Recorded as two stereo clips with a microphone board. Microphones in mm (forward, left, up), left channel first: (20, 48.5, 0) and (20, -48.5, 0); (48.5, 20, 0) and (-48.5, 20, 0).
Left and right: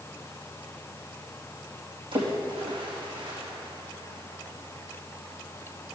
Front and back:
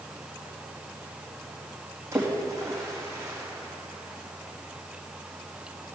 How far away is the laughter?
No laughter in this recording.